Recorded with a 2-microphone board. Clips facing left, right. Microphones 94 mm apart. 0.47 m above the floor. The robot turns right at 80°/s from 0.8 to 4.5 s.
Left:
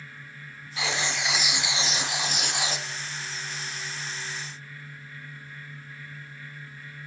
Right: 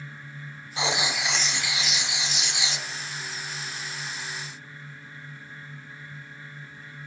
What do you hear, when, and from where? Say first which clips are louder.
0.8 s writing: right 2 dB; 40° right, 0.5 m; by 2.9 s 125° left, 0.5 m